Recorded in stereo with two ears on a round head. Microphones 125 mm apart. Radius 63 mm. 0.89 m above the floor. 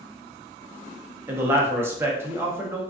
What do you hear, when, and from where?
1.3 s a man speaking: 15° right (ahead or behind), 0.6 m